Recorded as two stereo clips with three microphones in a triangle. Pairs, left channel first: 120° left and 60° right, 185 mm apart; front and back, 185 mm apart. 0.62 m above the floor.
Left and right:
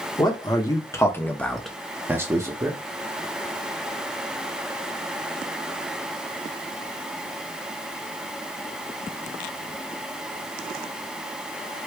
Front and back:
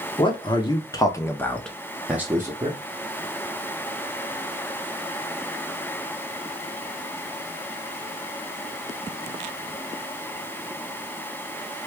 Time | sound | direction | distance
0.2 | a man speaking | 60° left | 1.0 m